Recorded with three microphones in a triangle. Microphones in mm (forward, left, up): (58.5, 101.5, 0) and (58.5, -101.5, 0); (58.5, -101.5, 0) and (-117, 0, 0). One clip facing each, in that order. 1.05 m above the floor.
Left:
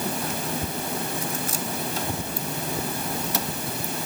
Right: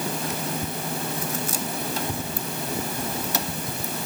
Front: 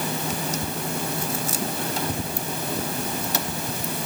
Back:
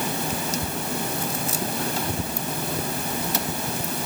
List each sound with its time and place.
Only background noise.